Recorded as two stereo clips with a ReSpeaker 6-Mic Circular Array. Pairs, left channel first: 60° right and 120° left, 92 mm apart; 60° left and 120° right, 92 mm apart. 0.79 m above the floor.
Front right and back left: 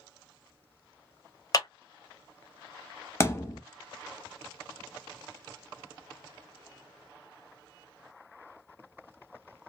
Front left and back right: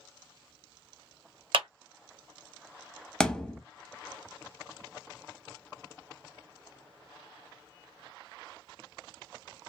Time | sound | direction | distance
1.5 | a clap | 100° right | 0.8 m
3.2 | a thud | 20° right | 0.7 m